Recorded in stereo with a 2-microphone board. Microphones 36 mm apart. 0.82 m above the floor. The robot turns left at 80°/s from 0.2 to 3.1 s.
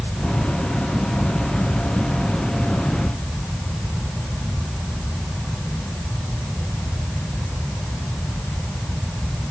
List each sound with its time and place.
Only background noise.